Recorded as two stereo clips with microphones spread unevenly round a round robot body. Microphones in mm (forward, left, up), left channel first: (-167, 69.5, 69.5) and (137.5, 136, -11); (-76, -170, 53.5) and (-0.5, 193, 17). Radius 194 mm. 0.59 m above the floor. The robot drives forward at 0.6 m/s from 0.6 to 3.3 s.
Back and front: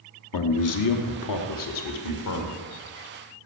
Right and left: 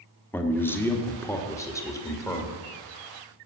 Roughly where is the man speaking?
Behind.